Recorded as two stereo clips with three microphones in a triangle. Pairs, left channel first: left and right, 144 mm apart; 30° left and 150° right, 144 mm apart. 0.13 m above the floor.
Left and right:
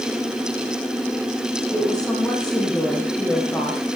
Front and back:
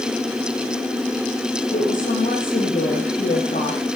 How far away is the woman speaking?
About 5.5 m.